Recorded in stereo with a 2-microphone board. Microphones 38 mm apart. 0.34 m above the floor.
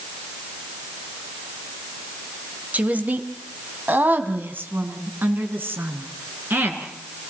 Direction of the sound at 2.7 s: 45° right (ahead or behind).